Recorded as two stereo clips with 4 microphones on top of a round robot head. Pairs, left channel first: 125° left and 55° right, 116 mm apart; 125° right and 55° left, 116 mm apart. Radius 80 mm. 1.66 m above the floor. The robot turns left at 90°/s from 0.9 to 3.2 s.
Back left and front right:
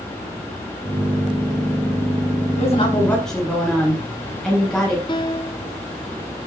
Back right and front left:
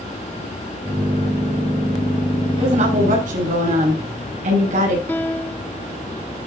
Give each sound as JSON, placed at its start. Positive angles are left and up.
{"t": 2.6, "sound": "a woman speaking", "azimuth_deg": 100, "distance_m": 8.5}
{"t": 5.1, "sound": "a piano", "azimuth_deg": 165, "distance_m": 0.5}